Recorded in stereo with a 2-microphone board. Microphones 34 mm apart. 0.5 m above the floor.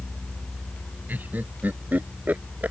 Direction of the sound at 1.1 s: 60° right (ahead or behind).